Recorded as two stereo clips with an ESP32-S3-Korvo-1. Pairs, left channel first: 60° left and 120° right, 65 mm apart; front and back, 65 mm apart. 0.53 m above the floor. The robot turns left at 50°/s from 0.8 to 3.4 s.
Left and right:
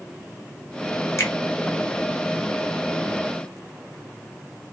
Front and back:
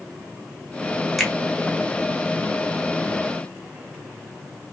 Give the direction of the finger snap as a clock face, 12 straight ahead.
9 o'clock.